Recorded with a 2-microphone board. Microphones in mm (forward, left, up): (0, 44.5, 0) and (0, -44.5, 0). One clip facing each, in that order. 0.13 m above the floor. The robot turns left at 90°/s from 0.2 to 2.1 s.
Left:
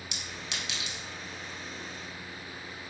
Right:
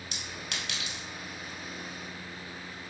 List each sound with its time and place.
0.1 s a clink: 40° right (ahead or behind), 1.4 m; by 1.0 s 45° right (ahead or behind), 1.4 m